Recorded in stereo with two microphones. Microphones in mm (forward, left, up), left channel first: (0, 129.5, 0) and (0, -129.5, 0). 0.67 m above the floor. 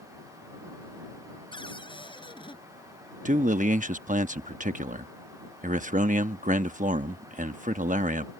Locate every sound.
1.5 s a cupboard door: 20° left (ahead or behind)
3.2 s a man speaking: 30° right (ahead or behind)